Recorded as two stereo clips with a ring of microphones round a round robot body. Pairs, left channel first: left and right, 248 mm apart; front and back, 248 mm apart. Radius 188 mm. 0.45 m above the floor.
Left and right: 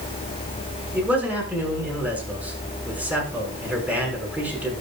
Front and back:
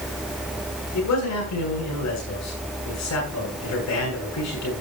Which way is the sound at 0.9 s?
5° right.